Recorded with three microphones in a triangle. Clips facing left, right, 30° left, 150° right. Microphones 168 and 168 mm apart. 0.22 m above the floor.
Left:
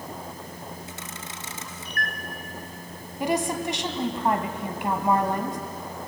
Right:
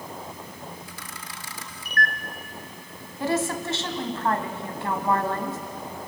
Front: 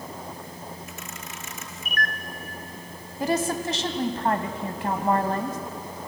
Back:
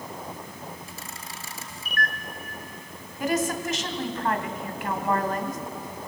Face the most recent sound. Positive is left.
turn(degrees=30)